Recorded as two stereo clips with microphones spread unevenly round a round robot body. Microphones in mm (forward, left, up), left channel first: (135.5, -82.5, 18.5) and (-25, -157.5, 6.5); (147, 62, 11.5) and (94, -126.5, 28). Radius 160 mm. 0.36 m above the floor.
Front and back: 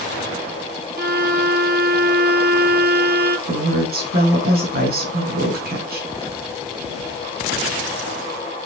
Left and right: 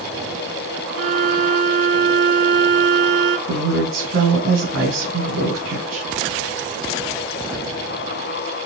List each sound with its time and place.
1.0 s a violin: 120° right, 1.2 m
3.5 s a woman speaking: 135° right, 4 m